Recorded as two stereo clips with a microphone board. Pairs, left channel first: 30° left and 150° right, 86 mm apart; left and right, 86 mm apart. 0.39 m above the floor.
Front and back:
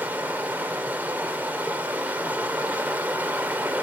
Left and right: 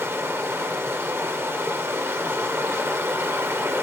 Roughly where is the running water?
Right.